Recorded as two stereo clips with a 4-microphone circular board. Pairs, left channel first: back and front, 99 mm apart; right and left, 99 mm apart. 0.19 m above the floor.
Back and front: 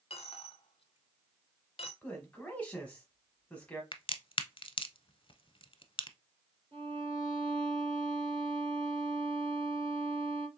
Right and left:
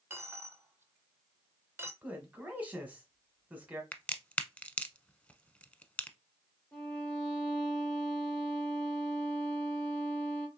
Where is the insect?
No insect in this recording.